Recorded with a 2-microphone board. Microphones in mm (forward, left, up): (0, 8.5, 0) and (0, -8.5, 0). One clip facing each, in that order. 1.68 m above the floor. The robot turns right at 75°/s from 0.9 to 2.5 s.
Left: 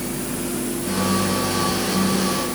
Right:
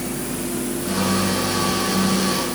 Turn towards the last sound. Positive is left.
No sound to turn to.